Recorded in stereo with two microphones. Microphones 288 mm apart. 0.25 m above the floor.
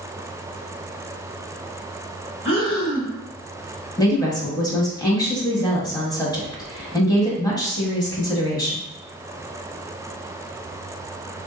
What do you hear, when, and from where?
2.5 s breathing: 40° left (ahead or behind), 1.7 m
4.0 s a woman speaking: 15° left (ahead or behind), 1.2 m